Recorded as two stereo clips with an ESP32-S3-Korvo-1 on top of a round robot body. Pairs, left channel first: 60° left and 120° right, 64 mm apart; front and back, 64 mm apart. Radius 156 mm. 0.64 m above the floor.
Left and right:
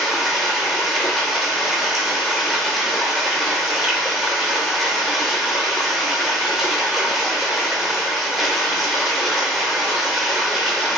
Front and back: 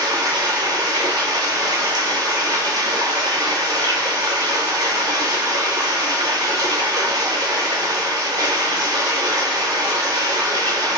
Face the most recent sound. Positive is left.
turn(degrees=155)